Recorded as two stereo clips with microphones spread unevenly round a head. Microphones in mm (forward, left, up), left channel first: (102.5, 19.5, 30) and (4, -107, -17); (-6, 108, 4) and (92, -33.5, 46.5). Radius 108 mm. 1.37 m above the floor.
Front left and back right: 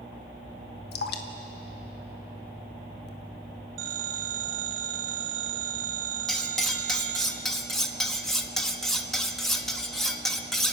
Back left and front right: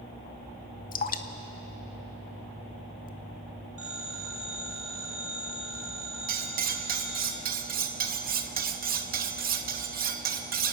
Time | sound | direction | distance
0.9 | dripping | 80° left | 1.1 m
3.8 | a phone ringing | 140° right | 2 m
6.3 | cutlery clinking | 30° right | 1.3 m